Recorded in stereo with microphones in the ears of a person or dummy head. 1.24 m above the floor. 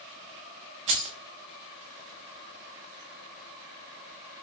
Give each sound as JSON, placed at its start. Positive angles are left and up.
{"t": 0.9, "sound": "keys jangling", "side_deg": -35, "distance_m": 0.5}